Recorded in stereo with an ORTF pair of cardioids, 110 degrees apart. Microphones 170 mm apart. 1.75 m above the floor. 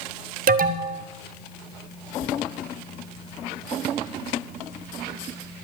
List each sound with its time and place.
0.5 s an alarm: 55° right, 0.8 m